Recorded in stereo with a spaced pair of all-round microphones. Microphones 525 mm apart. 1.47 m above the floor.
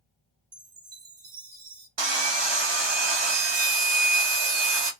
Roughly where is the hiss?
No hiss in this recording.